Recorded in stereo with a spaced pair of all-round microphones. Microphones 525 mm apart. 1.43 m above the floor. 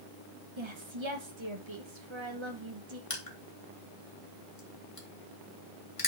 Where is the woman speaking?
60° right (ahead or behind), 1.3 m.